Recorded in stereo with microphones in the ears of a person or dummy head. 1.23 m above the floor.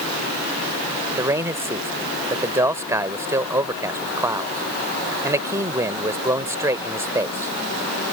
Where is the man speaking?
20° right (ahead or behind).